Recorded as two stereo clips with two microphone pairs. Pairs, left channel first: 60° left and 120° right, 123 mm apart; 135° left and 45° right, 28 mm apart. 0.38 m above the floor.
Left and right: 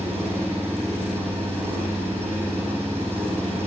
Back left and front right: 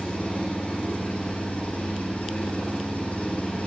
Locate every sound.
0.0 s an engine running: 170° left, 7.5 m